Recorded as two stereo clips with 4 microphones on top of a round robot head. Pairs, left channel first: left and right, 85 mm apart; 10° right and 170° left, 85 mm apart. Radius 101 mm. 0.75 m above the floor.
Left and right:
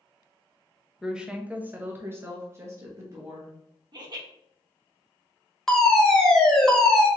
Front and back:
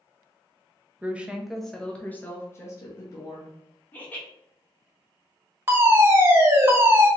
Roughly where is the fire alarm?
Behind.